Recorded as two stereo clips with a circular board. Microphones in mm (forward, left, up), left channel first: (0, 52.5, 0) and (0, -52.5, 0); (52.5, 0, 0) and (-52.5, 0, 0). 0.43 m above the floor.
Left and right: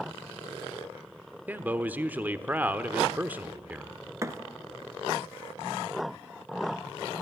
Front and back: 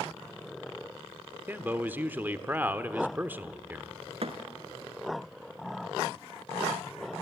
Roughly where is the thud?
Behind right.